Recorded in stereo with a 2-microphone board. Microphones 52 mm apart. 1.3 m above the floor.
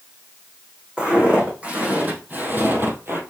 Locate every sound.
1.0 s footsteps: 20° right (ahead or behind), 4 m; by 3.2 s 50° right (ahead or behind), 2.5 m